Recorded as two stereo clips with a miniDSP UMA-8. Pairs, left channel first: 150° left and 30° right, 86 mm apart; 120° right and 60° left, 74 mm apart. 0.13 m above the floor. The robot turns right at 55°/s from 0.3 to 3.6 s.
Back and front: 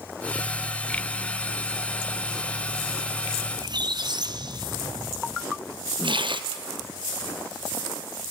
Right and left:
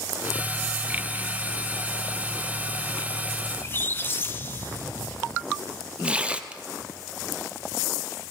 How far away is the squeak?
About 0.9 m.